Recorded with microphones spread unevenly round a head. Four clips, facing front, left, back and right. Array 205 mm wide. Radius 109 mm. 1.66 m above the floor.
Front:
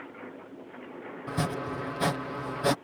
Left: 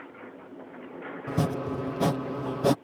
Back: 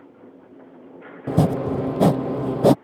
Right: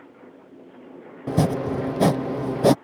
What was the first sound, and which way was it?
Chopping, 155° right.